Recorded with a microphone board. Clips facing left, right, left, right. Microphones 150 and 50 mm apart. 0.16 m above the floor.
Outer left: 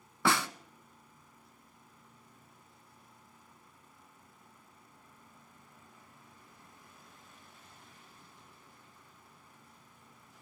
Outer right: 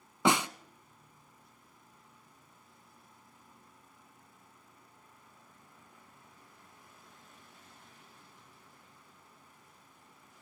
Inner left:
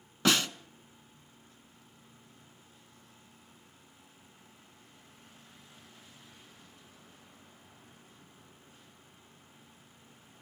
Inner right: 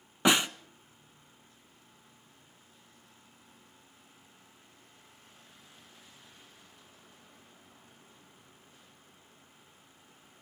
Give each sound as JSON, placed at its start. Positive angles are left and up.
{"t": 0.2, "sound": "a snare drum", "side_deg": -20, "distance_m": 0.5}